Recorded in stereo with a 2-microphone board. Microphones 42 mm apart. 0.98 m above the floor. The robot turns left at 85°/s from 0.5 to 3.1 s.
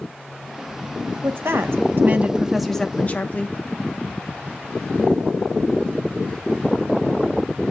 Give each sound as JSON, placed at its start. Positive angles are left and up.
{"t": 1.2, "sound": "a woman speaking", "azimuth_deg": -60, "distance_m": 1.3}